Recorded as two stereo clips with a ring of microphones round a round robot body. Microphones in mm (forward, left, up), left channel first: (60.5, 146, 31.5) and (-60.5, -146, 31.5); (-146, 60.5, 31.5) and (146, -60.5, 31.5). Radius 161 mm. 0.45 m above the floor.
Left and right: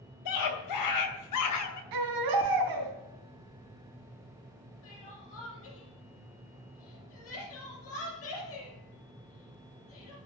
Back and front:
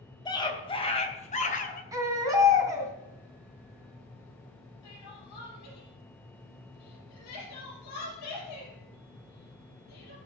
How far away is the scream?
About 3 m.